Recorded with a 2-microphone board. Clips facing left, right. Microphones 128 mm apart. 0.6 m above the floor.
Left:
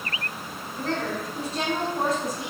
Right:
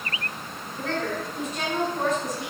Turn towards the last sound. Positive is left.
turn(degrees=20)  # may be behind; listen again after turning